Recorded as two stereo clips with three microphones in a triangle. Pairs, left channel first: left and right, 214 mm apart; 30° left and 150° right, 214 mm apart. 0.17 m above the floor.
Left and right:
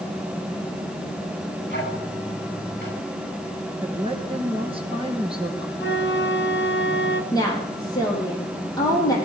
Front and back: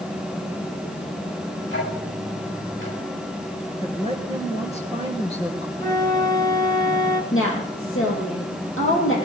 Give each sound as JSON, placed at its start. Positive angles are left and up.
{"t": 1.7, "sound": "ticking", "azimuth_deg": 50, "distance_m": 10.0}
{"t": 3.8, "sound": "a woman speaking", "azimuth_deg": -30, "distance_m": 3.0}
{"t": 5.8, "sound": "a flute", "azimuth_deg": 100, "distance_m": 1.2}
{"t": 7.3, "sound": "a woman speaking", "azimuth_deg": 20, "distance_m": 5.5}